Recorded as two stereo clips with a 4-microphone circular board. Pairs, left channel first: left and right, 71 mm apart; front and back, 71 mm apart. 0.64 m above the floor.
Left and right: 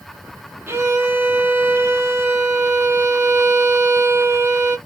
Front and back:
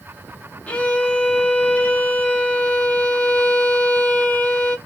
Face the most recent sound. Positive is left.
turn(degrees=-60)